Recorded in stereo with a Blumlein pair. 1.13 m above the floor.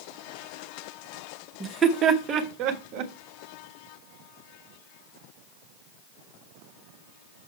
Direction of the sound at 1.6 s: 10° right.